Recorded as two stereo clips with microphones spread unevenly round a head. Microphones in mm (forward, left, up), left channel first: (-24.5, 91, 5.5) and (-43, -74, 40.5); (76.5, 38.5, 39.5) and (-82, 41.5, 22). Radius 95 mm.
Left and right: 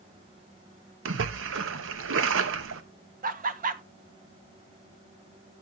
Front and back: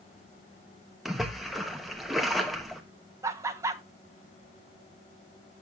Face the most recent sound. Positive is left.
turn(degrees=-125)